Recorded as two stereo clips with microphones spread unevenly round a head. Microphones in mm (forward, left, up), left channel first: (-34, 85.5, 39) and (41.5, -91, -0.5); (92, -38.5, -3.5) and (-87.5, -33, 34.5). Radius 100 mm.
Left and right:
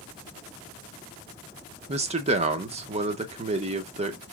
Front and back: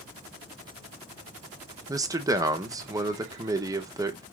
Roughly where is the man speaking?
Right.